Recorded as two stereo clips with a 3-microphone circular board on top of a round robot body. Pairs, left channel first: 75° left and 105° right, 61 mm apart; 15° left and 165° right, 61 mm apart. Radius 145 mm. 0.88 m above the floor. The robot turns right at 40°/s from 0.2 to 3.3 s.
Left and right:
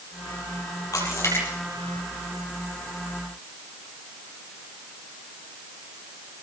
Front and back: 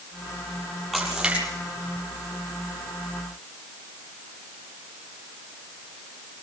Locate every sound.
0.9 s a splash: 110° left, 7.5 m; by 1.5 s 130° left, 7.5 m